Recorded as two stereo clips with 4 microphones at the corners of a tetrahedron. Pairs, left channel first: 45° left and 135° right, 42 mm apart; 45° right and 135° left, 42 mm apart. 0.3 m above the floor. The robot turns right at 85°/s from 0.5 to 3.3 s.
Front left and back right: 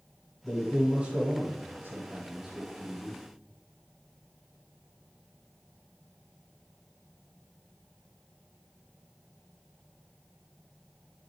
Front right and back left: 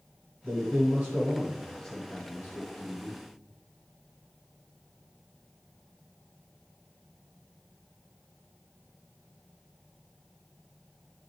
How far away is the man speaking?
About 2.5 m.